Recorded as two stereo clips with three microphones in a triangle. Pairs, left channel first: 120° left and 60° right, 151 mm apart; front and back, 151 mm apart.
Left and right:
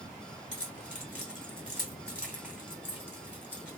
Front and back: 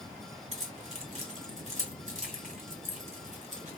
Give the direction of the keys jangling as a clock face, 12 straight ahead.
5 o'clock.